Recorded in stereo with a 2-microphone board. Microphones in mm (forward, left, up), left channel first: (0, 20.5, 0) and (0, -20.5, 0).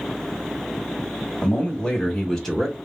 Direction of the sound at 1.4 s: 30° left (ahead or behind).